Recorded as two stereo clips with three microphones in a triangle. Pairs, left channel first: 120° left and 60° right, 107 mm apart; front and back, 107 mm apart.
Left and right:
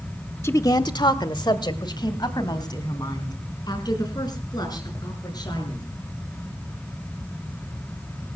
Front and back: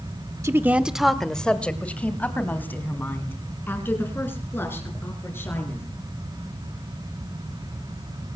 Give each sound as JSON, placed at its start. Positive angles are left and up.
{"t": 0.4, "sound": "a woman speaking", "azimuth_deg": 155, "distance_m": 0.9}